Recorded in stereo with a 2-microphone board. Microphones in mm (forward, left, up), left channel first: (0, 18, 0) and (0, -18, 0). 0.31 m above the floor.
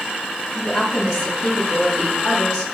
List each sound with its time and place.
0.6 s a woman speaking: 25° left (ahead or behind), 1.7 m